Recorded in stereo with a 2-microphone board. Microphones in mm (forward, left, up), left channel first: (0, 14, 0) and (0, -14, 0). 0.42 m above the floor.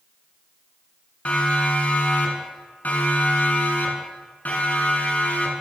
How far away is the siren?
About 6.5 m.